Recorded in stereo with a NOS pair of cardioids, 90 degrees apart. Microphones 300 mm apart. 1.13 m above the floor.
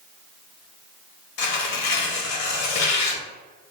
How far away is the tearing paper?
About 1.0 m.